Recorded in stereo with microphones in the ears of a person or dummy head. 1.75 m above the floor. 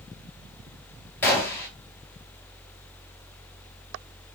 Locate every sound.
1.2 s a gunshot: 15° left (ahead or behind), 4 m